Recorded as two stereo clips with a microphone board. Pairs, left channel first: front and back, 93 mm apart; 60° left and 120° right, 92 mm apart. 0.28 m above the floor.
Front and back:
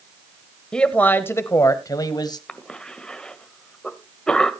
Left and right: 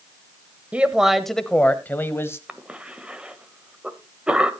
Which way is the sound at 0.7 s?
70° right.